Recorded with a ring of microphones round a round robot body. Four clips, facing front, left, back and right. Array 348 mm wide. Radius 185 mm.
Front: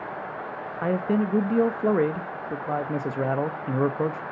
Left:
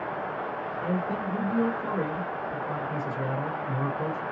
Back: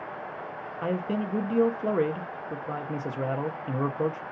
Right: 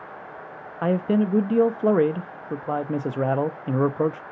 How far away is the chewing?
I don't hear chewing.